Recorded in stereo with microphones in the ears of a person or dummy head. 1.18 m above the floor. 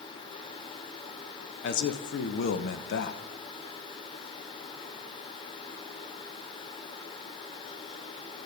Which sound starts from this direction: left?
A man speaking, at 1.6 s.